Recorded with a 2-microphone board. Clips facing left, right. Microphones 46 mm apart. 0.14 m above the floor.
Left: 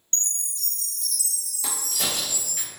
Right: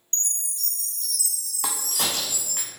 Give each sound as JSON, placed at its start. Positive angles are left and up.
{"t": 0.1, "sound": "a chime", "side_deg": -25, "distance_m": 1.0}
{"t": 1.6, "sound": "a crack", "side_deg": -75, "distance_m": 0.8}